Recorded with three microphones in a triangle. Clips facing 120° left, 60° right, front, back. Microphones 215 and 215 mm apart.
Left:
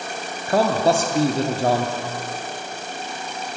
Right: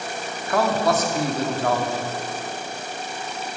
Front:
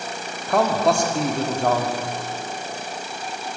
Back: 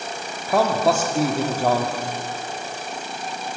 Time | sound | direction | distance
0.5 | a man speaking | 100° left | 0.7 m